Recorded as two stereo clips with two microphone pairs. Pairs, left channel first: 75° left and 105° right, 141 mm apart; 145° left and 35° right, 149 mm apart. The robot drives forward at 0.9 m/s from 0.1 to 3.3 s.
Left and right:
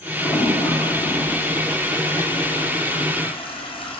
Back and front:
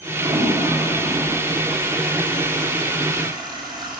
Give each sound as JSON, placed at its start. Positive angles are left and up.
{"t": 0.2, "sound": "a toilet flushing", "azimuth_deg": 15, "distance_m": 6.0}